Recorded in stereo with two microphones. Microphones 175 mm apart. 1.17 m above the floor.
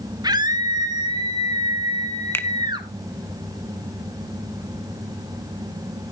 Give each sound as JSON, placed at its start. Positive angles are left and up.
{"t": 0.2, "sound": "a scream", "side_deg": -25, "distance_m": 1.8}
{"t": 2.3, "sound": "a finger snap", "side_deg": 15, "distance_m": 0.7}